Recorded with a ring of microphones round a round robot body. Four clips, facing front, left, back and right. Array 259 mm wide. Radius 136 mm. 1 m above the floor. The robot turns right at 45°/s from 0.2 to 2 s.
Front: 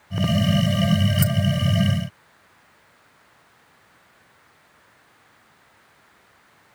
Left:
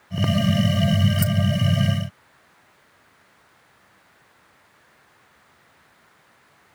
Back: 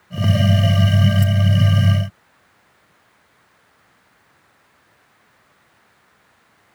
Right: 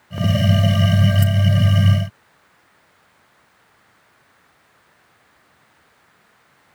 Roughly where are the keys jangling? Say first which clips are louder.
Right 2 dB, back 2 dB; ahead left.